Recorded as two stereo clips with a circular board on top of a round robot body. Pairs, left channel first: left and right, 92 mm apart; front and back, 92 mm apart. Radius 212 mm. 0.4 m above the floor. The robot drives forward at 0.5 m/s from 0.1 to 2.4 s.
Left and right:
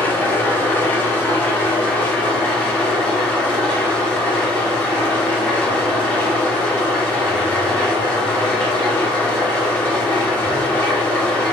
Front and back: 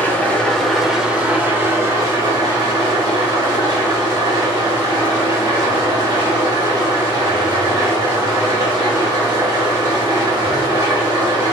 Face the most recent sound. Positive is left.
turn(degrees=160)